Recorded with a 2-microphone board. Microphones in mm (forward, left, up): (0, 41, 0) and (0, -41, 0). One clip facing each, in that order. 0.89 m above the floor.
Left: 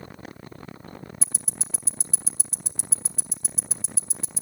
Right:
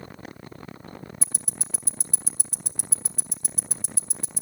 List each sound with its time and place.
1.2 s ticking: 55° right (ahead or behind), 1.0 m